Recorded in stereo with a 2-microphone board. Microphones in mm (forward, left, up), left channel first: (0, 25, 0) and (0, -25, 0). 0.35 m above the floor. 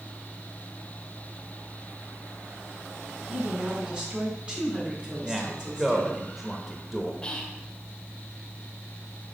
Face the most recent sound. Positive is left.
turn(degrees=20)  # may be behind; listen again after turning